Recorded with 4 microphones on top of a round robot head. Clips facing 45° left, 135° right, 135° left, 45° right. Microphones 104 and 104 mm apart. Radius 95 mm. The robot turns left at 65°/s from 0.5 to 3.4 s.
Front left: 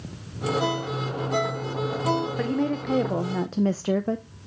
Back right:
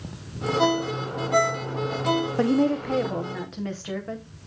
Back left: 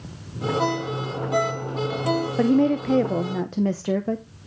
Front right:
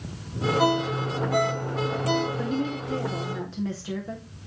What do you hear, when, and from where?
0.6 s a ringtone: 130° right, 2.5 m; by 2.3 s 120° left, 2.5 m
2.4 s a woman speaking: 165° left, 0.5 m; by 4.2 s 95° left, 0.5 m